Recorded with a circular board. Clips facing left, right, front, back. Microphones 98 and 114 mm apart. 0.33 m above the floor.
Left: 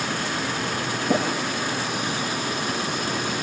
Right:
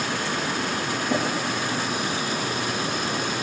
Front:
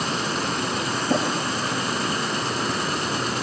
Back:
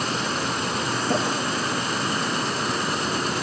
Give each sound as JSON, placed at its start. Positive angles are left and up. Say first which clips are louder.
{"t": 1.1, "sound": "tapping", "louder": "left 3 dB, front 2 dB", "azimuth_deg": 120, "distance_m": 5.5}